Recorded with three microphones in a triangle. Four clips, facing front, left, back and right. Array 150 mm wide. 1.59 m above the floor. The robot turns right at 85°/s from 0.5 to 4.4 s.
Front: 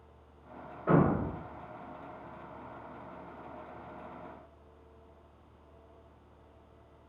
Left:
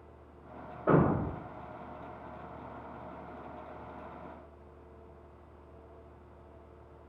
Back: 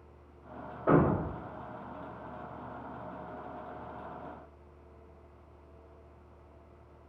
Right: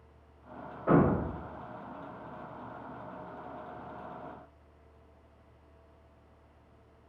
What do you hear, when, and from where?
0.9 s a thud: 165° left, 1.3 m; by 1.5 s 145° right, 1.3 m